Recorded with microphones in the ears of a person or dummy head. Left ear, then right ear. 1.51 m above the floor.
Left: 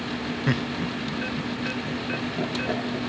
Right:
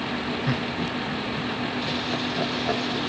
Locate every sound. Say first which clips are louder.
0.5 s laughter: even; 15° left (ahead or behind), 0.6 m; by 3.0 s 40° right (ahead or behind), 2.5 m